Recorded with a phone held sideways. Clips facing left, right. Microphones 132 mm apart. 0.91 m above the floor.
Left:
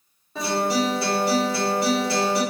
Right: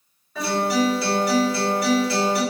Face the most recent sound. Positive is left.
turn(degrees=25)  # may be behind; listen again after turning